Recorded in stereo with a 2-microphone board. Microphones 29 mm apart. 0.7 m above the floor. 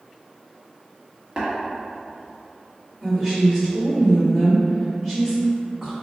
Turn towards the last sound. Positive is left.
turn(degrees=5)  # may be behind; listen again after turning